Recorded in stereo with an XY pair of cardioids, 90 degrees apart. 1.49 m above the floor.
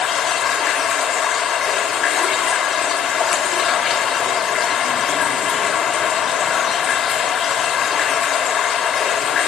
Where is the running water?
65° left, 2.5 m.